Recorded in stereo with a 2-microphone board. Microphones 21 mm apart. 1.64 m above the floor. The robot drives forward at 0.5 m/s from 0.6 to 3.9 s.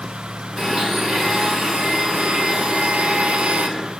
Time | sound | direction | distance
0.6 | a blender | 25° right (ahead or behind) | 1.9 m